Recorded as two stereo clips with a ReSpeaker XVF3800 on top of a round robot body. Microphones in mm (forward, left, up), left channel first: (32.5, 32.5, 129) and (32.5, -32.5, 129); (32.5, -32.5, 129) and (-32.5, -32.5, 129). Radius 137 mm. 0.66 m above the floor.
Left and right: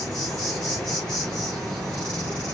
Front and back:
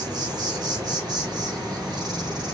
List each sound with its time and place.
0.0 s an insect: 175° left, 1.4 m